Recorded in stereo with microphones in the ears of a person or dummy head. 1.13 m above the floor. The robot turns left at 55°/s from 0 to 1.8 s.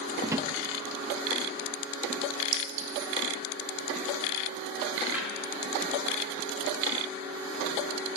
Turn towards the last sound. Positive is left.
turn(degrees=-10)  # may be behind; listen again after turning